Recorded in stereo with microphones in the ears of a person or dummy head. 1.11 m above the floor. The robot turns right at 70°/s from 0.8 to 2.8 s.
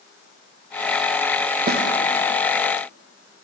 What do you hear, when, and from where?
1.7 s a snare drum: 40° right (ahead or behind), 0.6 m; by 1.8 s 55° right (ahead or behind), 0.6 m